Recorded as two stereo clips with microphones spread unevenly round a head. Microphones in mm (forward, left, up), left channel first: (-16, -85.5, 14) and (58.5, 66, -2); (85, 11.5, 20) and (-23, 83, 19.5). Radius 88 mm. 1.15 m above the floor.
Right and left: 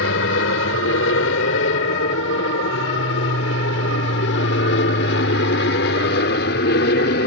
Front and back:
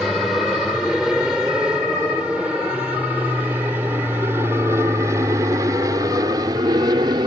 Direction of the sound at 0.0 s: 125° right.